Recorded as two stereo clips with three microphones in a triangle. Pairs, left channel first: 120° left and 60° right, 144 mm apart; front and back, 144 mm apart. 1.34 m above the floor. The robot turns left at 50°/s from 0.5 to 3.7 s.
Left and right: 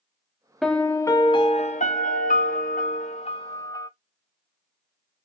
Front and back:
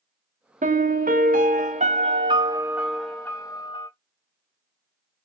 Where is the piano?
150° right, 0.7 m; by 3.9 s 55° left, 0.7 m.